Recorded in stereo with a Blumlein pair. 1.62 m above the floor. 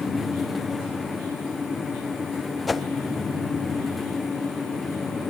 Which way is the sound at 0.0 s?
10° left.